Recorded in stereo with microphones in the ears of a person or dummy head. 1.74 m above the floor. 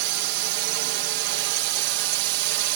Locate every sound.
0.0 s a drone: 65° right (ahead or behind)